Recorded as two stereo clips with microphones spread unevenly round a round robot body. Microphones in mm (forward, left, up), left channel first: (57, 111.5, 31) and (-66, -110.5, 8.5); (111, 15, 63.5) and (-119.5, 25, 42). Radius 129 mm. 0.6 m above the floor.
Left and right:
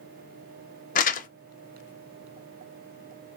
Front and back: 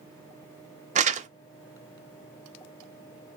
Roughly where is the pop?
I don't hear a pop.